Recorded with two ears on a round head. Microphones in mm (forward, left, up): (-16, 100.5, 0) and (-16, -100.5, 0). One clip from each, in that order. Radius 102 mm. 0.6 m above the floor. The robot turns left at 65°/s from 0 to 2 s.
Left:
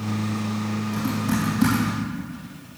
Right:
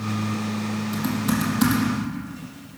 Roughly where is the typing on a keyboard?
Right.